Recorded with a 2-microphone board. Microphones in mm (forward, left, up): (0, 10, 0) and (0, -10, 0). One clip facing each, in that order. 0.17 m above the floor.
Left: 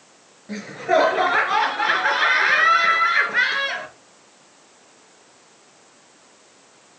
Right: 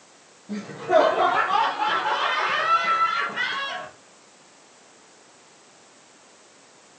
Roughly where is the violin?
I don't hear a violin.